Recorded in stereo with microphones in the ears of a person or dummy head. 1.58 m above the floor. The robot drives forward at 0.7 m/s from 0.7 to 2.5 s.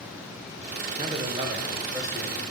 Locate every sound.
1.0 s a man speaking: 30° right (ahead or behind), 0.7 m; by 2.4 s 15° right (ahead or behind), 1.6 m